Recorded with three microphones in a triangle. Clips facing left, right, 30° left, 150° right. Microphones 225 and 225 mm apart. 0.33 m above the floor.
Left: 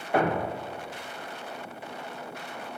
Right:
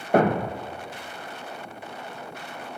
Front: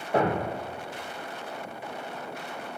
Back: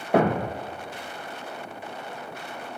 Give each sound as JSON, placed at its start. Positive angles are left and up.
{"t": 0.1, "sound": "a thud", "azimuth_deg": -135, "distance_m": 1.1}